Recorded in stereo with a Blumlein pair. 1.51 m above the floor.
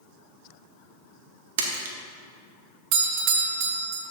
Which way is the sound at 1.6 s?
55° right.